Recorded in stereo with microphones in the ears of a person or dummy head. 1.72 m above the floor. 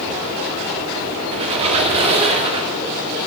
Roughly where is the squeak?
Right.